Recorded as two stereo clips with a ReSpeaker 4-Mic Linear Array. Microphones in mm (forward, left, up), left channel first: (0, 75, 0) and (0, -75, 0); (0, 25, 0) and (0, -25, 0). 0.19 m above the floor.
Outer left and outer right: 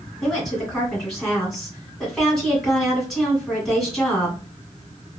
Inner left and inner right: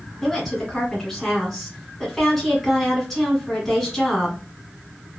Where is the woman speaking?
Centre (ahead or behind), 1.6 m.